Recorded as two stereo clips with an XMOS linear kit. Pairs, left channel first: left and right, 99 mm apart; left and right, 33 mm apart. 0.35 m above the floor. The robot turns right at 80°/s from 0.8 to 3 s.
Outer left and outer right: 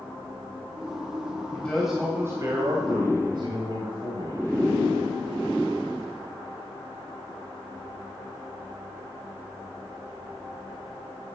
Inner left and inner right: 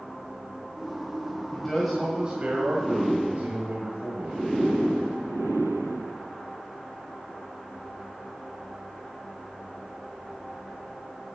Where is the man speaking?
155° left, 2 m; by 4.4 s 85° right, 2 m.